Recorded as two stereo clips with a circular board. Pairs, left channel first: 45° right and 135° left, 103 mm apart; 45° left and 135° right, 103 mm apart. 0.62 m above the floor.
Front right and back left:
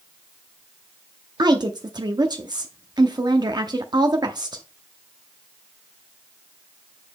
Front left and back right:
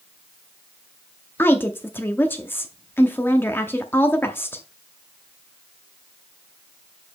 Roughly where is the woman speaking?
Left.